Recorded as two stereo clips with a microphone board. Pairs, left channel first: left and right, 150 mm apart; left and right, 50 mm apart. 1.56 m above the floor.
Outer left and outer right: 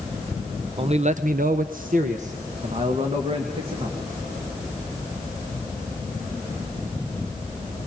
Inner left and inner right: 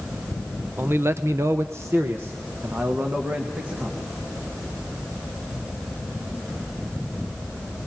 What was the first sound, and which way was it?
A man speaking, 40° right (ahead or behind).